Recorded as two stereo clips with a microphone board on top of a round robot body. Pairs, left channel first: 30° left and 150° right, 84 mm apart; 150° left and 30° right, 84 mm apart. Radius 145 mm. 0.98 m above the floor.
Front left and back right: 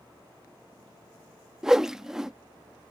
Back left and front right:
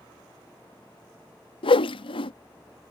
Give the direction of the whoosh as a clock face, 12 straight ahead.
8 o'clock.